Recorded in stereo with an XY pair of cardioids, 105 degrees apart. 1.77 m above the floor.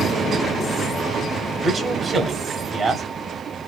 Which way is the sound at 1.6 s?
40° right.